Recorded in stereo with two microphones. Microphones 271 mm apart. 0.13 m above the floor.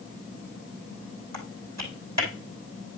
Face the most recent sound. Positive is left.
turn(degrees=-80)